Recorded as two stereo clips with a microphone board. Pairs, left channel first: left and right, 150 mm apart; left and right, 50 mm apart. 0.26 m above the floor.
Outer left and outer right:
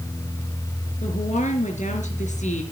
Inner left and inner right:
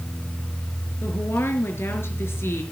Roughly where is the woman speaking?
Left.